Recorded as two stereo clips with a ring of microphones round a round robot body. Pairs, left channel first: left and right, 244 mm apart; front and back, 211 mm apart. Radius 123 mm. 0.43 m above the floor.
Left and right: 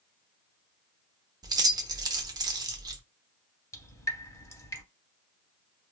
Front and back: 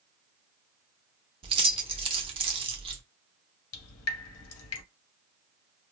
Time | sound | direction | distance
1.4 | keys jangling | 145° right | 0.5 m
3.7 | dripping | 10° left | 0.6 m